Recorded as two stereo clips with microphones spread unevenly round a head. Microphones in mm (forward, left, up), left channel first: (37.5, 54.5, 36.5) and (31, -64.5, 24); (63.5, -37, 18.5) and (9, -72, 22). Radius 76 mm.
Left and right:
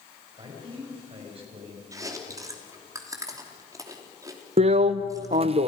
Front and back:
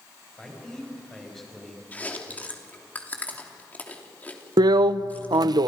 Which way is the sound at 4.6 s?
135° right.